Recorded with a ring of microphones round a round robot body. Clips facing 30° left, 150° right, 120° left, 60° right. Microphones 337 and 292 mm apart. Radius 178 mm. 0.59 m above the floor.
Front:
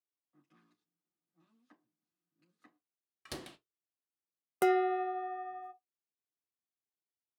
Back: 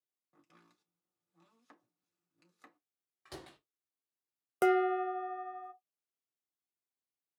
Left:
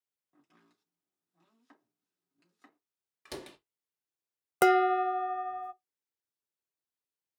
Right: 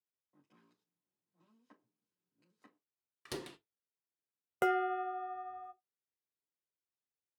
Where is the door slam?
5° left, 1.0 m.